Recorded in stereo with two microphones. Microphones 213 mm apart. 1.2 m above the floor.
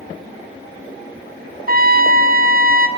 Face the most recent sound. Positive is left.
turn(degrees=-45)  # may be behind; listen again after turning